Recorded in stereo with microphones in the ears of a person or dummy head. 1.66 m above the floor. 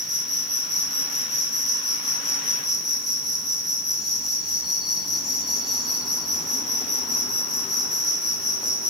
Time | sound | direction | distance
0.0 | an insect | 5° left (ahead or behind) | 4.5 m